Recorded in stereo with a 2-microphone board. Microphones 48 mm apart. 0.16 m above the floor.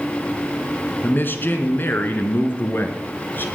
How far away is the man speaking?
About 2 m.